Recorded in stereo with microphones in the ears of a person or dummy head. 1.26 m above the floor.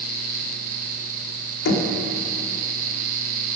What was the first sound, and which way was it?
Knocking, 65° left (ahead or behind).